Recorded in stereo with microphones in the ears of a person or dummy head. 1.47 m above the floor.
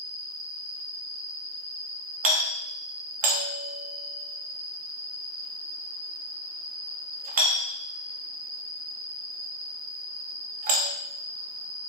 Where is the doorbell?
40° right (ahead or behind), 0.9 m.